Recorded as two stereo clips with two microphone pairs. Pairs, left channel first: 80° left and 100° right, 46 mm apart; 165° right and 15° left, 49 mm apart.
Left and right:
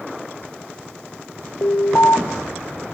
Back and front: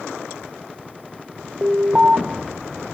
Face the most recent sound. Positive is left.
turn(degrees=85)